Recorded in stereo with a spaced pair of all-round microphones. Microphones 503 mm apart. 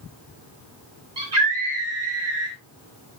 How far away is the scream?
About 3 m.